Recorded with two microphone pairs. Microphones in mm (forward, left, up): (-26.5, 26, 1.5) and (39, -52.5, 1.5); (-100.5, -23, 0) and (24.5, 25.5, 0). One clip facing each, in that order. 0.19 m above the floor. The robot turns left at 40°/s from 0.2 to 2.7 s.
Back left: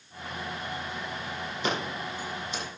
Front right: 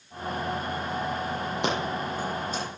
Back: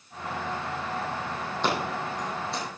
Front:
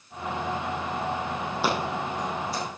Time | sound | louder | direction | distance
1.6 | scissors | front right 2 dB, front 1 dB | 60° right | 4.5 m